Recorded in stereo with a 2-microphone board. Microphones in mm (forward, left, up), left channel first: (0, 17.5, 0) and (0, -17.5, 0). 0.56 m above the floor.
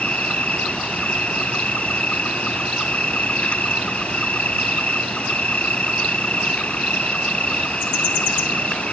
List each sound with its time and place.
0.0 s an insect: 35° left (ahead or behind)